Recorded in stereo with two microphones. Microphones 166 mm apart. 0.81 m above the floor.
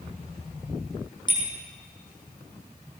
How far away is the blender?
I don't hear a blender.